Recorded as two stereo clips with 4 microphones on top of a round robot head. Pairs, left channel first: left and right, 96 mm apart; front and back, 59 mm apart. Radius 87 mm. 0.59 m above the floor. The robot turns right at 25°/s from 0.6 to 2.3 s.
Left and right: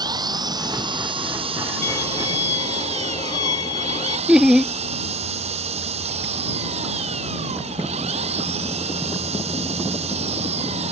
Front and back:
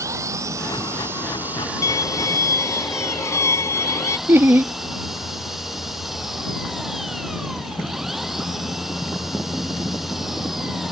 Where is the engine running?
135° right; by 10.9 s 95° right.